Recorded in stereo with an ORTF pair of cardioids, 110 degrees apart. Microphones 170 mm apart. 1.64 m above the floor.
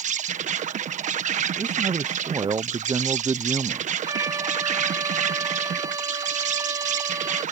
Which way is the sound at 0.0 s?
45° right.